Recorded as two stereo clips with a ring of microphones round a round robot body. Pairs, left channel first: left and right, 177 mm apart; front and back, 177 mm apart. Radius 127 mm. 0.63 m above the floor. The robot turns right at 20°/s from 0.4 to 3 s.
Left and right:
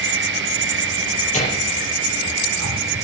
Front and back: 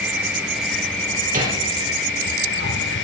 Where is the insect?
95° right, 2.5 m; by 3.0 s 45° right, 2.5 m.